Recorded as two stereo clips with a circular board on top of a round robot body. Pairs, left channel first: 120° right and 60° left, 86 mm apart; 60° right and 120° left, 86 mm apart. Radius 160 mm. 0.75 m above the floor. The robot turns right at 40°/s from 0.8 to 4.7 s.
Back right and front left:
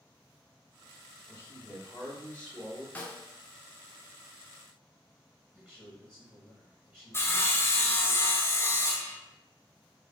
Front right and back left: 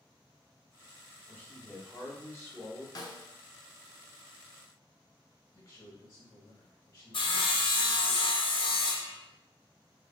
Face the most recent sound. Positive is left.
turn(degrees=-55)